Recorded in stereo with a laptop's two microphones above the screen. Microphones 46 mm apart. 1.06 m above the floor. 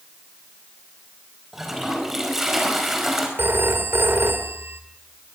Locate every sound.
1.5 s a toilet flushing: 5° right (ahead or behind), 4.5 m
3.4 s a phone ringing: 65° right (ahead or behind), 2.5 m